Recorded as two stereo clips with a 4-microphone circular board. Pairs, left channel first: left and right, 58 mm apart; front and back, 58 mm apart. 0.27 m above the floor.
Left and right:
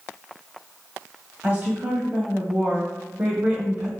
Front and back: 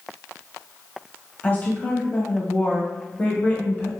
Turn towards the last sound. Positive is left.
turn(degrees=-35)